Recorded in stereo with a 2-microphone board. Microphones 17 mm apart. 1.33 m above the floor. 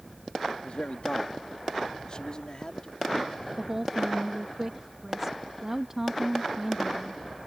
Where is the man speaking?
80° left; by 3.5 s 35° left (ahead or behind).